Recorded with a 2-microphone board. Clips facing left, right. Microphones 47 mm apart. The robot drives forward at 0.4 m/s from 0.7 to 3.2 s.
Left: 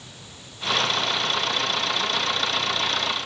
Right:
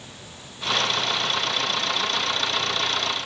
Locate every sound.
Only background noise.